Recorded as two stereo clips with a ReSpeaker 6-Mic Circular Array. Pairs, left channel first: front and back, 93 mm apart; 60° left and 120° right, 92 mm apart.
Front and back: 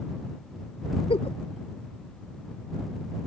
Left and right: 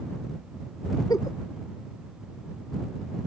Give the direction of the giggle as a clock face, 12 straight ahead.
12 o'clock.